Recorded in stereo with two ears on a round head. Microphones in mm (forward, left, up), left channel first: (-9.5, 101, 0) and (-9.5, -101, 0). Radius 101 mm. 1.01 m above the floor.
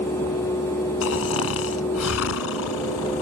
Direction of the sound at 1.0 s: 70° left (ahead or behind).